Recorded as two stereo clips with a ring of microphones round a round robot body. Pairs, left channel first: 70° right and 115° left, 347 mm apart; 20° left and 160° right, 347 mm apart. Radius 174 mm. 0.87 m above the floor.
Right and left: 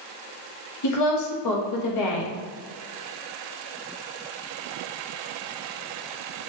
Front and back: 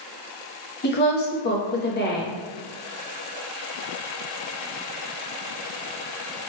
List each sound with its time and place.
0.8 s a woman speaking: 35° right, 1.0 m